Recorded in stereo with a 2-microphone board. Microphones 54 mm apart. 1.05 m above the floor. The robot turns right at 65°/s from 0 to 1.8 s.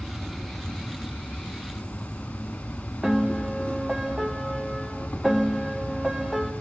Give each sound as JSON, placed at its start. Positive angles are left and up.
{"t": 0.0, "sound": "an insect", "side_deg": 0, "distance_m": 1.0}
{"t": 3.0, "sound": "a piano", "side_deg": -5, "distance_m": 0.7}